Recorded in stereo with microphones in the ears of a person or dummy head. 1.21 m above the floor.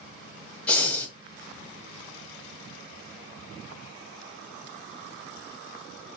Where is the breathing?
10° left (ahead or behind), 0.8 m.